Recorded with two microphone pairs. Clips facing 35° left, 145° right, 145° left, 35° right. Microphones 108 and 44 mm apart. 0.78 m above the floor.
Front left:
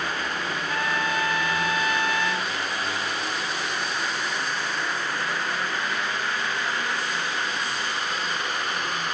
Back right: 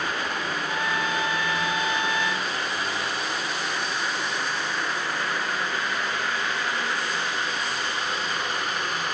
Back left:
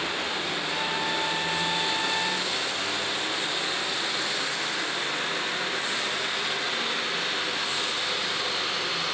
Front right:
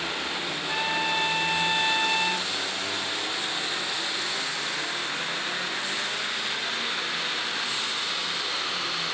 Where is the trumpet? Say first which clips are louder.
Front left 1 dB, front right 4 dB; 70° right, 1.9 m.